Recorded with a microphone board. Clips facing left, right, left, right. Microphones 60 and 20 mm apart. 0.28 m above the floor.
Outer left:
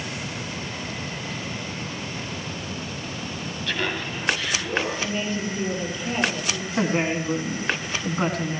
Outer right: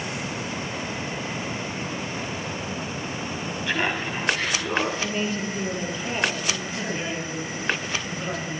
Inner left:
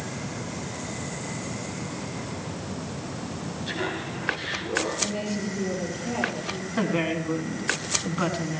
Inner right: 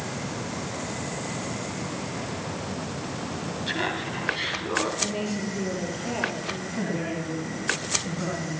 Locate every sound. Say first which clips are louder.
3.7 s laughter: outer right 2 dB, inner right 2 dB; 20° right (ahead or behind), 1.7 m; by 4.9 s 60° right (ahead or behind), 2.5 m
5.0 s a woman speaking: even, even; 15° right (ahead or behind), 7.5 m
6.8 s a woman speaking: outer left 6 dB, inner left 6 dB; 60° left (ahead or behind), 3 m